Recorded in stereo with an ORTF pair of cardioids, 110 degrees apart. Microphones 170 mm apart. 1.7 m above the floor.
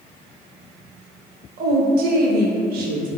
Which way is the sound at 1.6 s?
60° right.